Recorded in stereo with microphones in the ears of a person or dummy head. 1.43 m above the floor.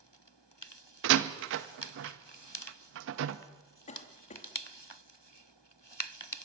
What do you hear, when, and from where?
1.0 s a door slam: 70° right (ahead or behind), 1.4 m
3.9 s a cough: 35° left (ahead or behind), 3 m